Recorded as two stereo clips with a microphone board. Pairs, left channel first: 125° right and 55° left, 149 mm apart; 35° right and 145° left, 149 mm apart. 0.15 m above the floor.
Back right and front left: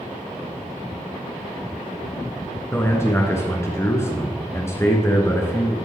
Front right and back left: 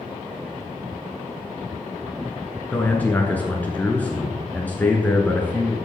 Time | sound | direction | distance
2.7 | a man speaking | 95° right | 1.2 m